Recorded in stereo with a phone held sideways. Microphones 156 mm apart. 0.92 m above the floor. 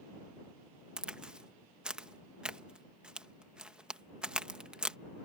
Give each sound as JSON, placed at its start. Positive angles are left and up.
{"t": 1.0, "sound": "a crack", "side_deg": -5}